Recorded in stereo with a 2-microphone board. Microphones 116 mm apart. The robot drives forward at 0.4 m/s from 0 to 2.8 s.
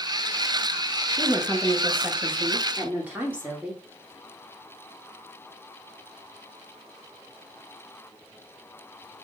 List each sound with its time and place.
1.2 s a woman speaking: 20° right (ahead or behind), 1.4 m; by 3.8 s 15° right (ahead or behind), 2 m